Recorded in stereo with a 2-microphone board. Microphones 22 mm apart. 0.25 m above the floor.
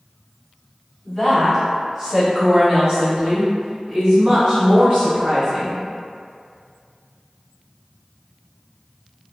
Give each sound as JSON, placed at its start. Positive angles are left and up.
{"t": 1.1, "sound": "a woman speaking", "side_deg": 10, "distance_m": 1.5}